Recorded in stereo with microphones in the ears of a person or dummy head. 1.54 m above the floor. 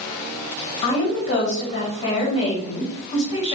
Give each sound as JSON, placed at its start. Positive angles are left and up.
{"t": 0.8, "sound": "a woman speaking", "side_deg": 30, "distance_m": 3.0}